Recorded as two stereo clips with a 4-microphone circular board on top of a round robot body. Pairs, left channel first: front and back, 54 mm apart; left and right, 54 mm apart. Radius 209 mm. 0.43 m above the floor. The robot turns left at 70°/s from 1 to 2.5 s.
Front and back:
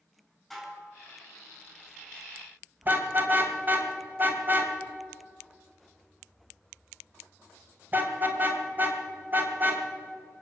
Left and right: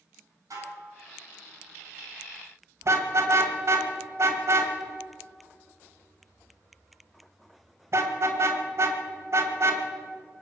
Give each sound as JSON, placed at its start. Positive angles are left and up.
{"t": 0.5, "sound": "dishes clattering", "azimuth_deg": -85, "distance_m": 5.0}
{"t": 2.8, "sound": "a car horn", "azimuth_deg": -125, "distance_m": 2.0}